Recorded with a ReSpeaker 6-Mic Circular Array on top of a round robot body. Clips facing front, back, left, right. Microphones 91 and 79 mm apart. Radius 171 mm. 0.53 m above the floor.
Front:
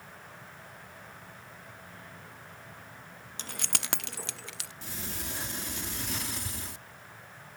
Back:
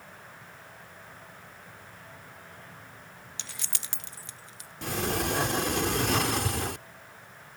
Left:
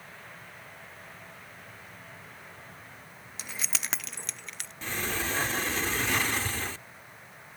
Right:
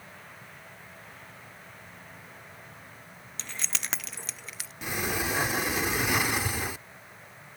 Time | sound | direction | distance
3.4 | keys jangling | 20° left | ?
4.8 | a sliding door | 165° right | ?